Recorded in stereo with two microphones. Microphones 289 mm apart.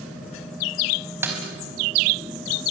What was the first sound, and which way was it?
A snare drum, 10° right (ahead or behind).